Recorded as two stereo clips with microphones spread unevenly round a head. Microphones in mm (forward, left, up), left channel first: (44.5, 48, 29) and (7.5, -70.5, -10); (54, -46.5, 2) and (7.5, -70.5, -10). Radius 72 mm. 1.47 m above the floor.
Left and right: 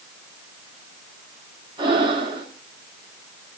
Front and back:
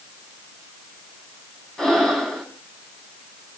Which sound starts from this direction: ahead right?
Breathing, at 1.8 s.